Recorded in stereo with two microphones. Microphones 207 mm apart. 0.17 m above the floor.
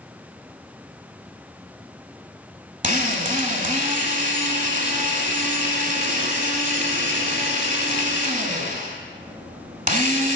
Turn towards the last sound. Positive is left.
turn(degrees=-40)  # may be behind; listen again after turning